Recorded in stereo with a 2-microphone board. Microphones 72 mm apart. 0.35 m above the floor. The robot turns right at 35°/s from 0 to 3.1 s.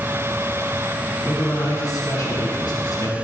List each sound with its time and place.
1.2 s a man speaking: 30° left, 2 m; by 3.1 s 95° left, 2 m